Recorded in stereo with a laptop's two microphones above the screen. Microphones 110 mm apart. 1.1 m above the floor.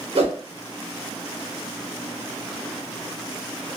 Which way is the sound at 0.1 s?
65° right (ahead or behind).